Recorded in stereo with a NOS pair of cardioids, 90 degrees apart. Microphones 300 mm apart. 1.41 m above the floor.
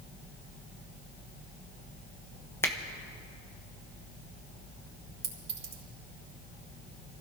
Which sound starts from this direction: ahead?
A finger snap, at 2.6 s.